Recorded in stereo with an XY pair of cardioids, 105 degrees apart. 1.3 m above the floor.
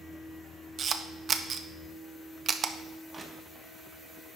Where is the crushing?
35° right, 1.4 m.